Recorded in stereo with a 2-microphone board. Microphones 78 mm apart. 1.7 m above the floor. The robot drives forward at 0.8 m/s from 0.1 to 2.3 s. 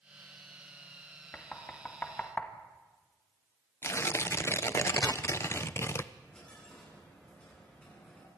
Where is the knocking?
15° left (ahead or behind), 2.5 m; by 2.5 s 20° left (ahead or behind), 1.8 m.